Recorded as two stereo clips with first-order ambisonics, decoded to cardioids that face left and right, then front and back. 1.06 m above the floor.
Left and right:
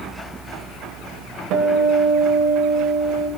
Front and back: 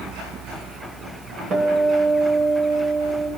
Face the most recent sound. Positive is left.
turn(degrees=-120)